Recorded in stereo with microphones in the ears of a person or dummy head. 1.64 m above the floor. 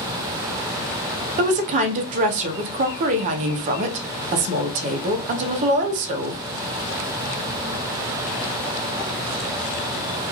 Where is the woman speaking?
45° right (ahead or behind), 0.6 m.